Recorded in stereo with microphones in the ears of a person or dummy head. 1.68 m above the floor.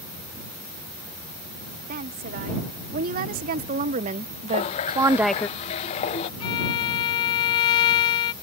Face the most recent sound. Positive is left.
turn(degrees=25)  # may be behind; listen again after turning